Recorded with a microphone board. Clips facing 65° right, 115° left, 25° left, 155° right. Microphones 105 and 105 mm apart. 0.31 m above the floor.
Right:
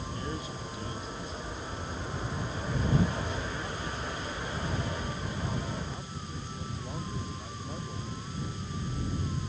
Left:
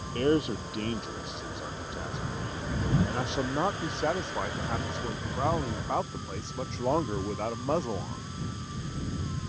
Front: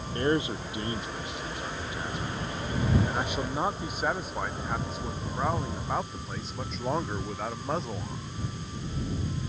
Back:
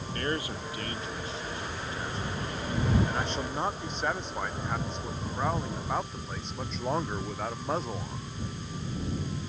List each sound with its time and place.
0.1 s a man speaking: 90° left; by 8.2 s 115° left